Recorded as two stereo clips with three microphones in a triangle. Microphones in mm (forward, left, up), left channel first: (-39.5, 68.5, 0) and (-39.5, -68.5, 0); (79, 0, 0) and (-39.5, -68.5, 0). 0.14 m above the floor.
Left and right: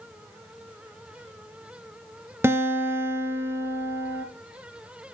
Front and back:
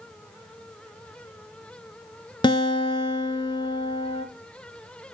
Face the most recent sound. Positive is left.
turn(degrees=-20)